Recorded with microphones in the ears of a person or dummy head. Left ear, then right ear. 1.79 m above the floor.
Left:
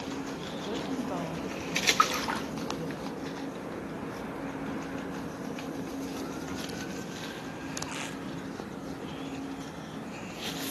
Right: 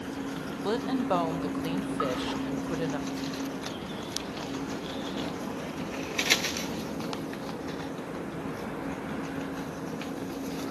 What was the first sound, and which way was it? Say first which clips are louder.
A woman speaking: right 7 dB; 70° right (ahead or behind).